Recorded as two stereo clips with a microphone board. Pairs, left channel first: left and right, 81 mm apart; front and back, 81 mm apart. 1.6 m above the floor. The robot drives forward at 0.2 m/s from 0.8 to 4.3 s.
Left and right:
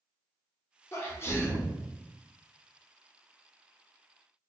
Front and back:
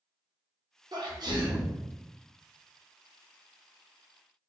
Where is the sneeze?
145° left, 0.8 m; by 1.8 s 150° left, 0.9 m.